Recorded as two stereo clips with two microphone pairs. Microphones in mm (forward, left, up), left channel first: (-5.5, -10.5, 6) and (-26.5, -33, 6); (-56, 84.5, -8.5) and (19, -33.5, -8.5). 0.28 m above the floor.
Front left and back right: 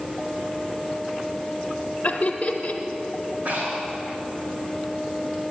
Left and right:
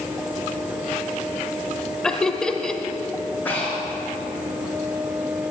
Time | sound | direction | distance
2.0 | laughter | 45° left | 1.0 m
3.5 | breathing | 160° right | 4 m